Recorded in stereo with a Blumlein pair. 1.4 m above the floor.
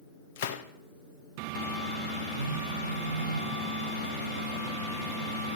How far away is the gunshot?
About 1.2 m.